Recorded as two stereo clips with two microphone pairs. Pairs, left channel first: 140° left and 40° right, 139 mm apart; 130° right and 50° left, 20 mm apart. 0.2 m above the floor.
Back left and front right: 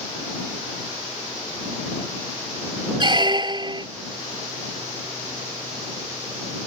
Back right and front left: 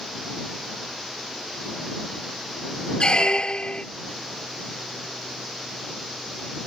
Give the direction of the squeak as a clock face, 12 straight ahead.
3 o'clock.